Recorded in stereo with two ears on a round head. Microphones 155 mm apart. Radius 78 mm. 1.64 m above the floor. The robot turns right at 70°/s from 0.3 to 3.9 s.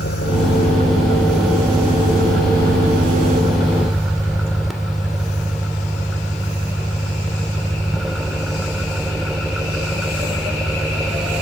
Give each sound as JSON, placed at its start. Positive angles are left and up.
{"t": 0.0, "sound": "an engine running", "azimuth_deg": 105}